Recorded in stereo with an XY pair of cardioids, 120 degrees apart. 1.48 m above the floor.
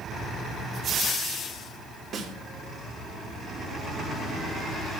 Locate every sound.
2.1 s a snare drum: 45° right, 2 m